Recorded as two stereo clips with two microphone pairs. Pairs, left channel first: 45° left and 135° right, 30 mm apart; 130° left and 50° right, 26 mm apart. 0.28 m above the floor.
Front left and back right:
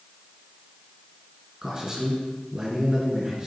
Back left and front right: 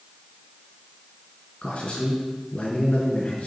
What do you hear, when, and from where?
1.6 s a man speaking: 160° left, 3.5 m